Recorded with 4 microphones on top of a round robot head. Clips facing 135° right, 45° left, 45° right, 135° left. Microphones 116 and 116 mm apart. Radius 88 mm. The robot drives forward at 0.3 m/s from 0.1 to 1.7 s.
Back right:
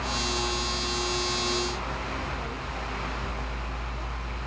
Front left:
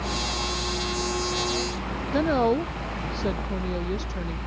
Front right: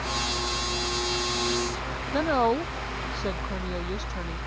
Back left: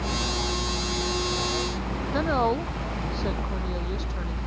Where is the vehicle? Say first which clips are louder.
Even, back left 2 dB; 100° left.